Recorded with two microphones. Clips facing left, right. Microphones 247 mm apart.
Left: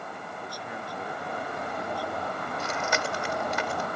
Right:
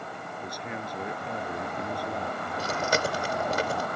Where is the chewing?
45° right (ahead or behind).